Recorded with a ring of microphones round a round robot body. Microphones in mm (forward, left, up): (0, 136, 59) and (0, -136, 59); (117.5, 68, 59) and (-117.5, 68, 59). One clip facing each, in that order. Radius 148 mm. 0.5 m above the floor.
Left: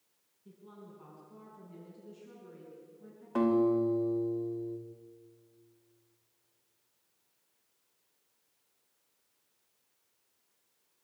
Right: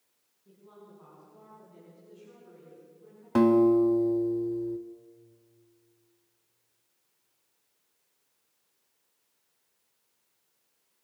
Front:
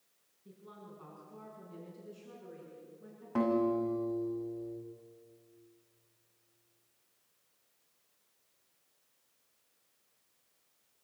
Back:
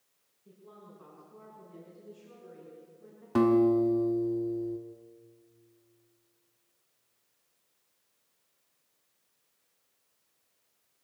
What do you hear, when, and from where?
0.5 s a woman speaking: 40° left, 6 m
3.4 s a guitar: 125° right, 1.2 m